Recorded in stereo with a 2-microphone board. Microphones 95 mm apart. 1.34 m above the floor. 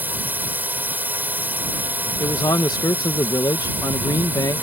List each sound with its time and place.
0.0 s a drone: 20° right (ahead or behind)
2.2 s a man speaking: 45° left (ahead or behind)